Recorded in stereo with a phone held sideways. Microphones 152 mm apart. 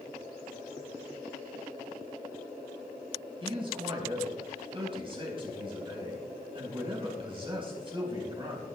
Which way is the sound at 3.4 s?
35° right (ahead or behind).